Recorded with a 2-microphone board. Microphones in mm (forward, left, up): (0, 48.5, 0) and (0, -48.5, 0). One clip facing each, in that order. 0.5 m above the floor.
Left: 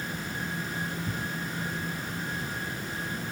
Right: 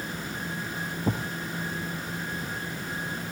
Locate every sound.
1.1 s a thud: 75° right (ahead or behind)